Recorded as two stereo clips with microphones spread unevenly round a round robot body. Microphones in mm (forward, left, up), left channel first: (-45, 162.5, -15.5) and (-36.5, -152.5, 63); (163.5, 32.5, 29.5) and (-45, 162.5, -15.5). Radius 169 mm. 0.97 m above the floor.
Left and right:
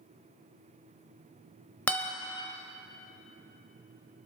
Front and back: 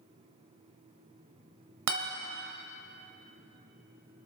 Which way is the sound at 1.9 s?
175° right.